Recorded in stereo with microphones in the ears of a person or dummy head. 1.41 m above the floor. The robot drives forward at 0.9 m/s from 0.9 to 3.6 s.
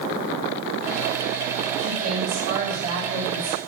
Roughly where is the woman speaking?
Right.